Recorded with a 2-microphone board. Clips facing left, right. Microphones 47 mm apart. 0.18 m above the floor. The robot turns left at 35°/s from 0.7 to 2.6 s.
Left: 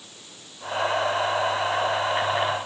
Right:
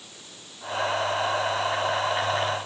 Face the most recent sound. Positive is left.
No sound to turn to.